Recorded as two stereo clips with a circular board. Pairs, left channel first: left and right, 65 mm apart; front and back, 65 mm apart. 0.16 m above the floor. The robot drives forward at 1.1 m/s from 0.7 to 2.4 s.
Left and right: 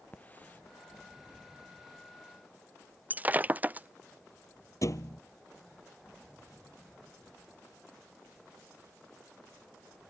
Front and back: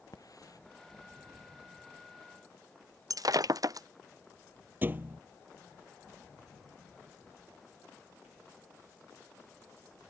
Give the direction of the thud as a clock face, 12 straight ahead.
8 o'clock.